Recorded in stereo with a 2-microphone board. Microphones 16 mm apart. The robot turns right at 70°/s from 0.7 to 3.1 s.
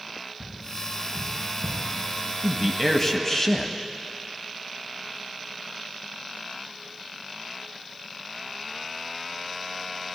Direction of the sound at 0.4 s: 65° right (ahead or behind).